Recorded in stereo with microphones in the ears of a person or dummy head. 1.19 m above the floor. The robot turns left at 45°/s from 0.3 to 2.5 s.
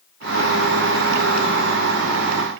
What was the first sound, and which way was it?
Only background noise.